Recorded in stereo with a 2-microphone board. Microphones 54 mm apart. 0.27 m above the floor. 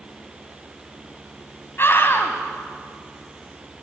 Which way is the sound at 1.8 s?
50° left (ahead or behind).